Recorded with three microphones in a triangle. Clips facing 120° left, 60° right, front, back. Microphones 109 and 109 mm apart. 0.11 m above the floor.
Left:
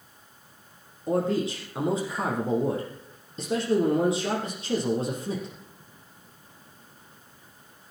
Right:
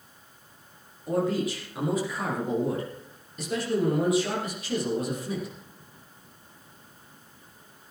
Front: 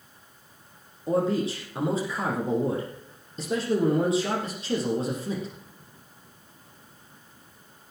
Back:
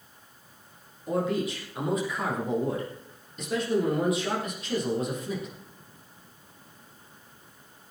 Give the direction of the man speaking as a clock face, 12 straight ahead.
10 o'clock.